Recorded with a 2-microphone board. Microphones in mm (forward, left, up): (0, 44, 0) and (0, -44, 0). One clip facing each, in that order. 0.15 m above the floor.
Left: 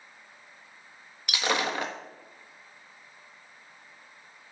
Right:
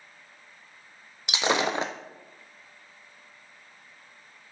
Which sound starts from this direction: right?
Breaking glass, at 1.3 s.